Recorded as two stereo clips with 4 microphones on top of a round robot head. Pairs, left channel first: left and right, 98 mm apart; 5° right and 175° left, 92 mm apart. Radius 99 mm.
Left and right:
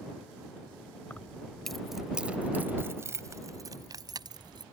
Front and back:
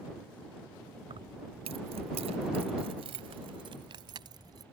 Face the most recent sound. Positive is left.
turn(degrees=-130)